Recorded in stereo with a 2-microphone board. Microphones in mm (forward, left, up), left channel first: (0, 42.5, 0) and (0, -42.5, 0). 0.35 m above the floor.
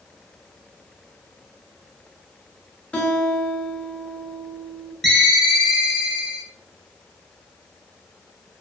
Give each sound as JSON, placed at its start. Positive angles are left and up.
{"t": 2.9, "sound": "a guitar", "side_deg": 15, "distance_m": 0.6}
{"t": 5.0, "sound": "a ringtone", "side_deg": 0, "distance_m": 0.7}